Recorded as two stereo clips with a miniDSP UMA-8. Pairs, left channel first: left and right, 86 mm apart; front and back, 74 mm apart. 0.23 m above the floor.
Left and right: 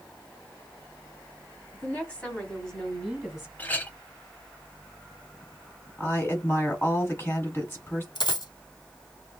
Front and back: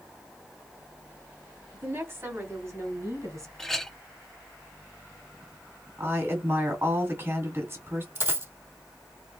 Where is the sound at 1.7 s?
140° left, 1.4 m; by 3.5 s 170° right, 1.6 m.